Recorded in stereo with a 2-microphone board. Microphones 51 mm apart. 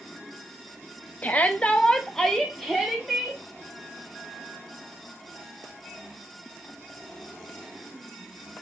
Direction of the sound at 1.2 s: 30° left (ahead or behind).